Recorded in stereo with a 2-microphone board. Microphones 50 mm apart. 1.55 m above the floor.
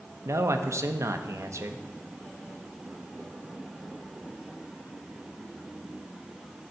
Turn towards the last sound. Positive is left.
turn(degrees=-70)  # may be behind; listen again after turning